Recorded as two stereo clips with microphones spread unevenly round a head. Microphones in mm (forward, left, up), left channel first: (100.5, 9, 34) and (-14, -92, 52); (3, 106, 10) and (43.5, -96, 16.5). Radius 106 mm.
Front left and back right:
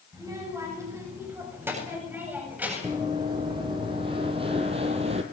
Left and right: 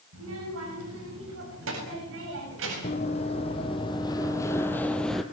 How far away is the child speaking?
About 7 m.